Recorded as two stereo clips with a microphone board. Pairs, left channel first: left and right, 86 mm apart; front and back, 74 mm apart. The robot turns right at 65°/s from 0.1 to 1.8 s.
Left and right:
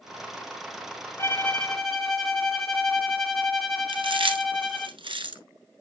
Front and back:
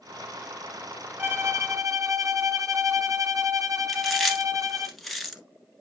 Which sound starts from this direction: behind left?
A violin, at 1.2 s.